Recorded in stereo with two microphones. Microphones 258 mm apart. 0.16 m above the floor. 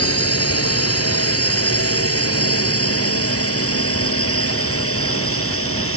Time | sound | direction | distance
0.0 | a drone | 60° left (ahead or behind) | ?